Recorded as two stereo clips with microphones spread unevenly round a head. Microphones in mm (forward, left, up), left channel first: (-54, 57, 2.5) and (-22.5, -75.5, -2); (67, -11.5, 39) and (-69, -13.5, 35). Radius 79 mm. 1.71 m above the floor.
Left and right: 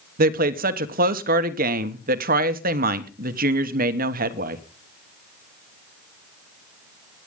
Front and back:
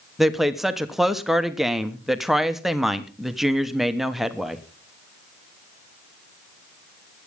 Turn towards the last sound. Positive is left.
turn(degrees=-90)